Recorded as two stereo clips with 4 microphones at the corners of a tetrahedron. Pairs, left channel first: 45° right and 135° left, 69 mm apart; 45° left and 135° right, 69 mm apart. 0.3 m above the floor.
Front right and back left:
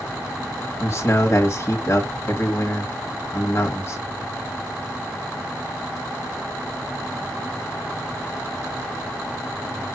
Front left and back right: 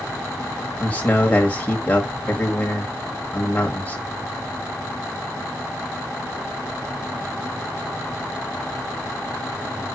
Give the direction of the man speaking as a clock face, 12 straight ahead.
1 o'clock.